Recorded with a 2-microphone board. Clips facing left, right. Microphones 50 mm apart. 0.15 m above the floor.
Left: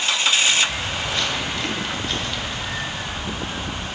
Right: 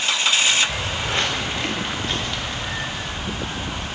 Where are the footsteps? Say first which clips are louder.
Right 1 dB; 50° right (ahead or behind), 0.9 m; by 3.9 s 10° left (ahead or behind), 2.5 m.